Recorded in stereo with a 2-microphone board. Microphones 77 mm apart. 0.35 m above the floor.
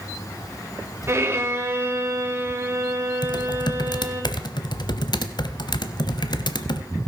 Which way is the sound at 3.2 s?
65° left (ahead or behind).